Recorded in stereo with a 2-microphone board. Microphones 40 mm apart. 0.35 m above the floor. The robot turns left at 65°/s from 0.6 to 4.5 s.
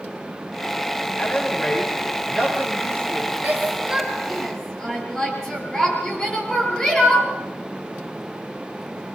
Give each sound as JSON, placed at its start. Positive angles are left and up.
{"t": 1.2, "sound": "a man speaking", "azimuth_deg": 40, "distance_m": 8.0}
{"t": 3.4, "sound": "a shout", "side_deg": -50, "distance_m": 7.0}